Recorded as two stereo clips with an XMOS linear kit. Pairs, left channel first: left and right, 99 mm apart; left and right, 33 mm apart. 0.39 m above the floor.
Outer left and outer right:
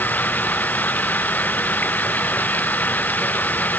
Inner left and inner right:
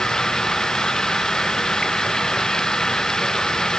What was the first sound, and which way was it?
Running water, 15° left (ahead or behind).